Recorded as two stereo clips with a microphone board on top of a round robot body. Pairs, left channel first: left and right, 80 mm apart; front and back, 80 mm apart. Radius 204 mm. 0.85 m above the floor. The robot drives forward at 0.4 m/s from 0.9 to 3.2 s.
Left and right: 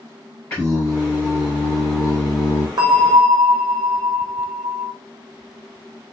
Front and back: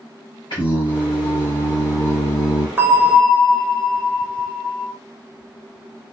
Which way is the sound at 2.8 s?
120° right.